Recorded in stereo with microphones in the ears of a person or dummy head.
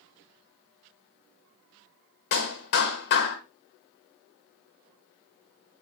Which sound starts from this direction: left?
A clap, at 2.3 s.